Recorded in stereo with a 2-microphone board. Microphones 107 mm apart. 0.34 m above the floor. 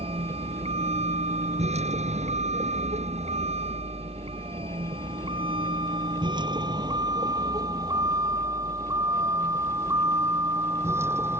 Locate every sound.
0.0 s a vehicle: 60° right (ahead or behind); by 11.4 s 20° right (ahead or behind)